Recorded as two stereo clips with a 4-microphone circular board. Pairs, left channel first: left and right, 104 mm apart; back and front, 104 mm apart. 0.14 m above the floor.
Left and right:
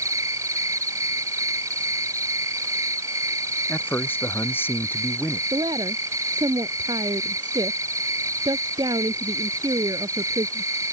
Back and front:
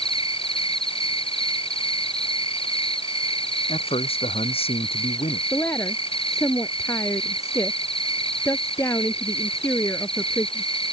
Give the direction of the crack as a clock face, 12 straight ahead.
I don't hear a crack.